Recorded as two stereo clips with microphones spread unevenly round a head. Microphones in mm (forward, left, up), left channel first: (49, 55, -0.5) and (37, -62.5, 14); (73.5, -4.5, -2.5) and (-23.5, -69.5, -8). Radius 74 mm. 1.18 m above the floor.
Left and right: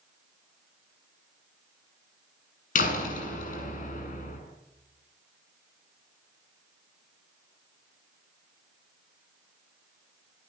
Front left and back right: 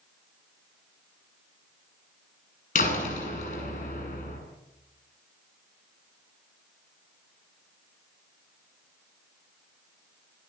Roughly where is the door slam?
Left.